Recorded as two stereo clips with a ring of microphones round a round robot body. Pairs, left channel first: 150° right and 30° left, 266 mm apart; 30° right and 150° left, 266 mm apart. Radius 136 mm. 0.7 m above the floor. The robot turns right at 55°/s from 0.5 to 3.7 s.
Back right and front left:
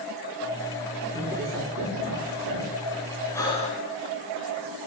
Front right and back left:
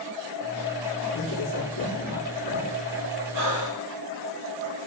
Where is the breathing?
130° left, 2.5 m; by 3.9 s 150° left, 2.5 m.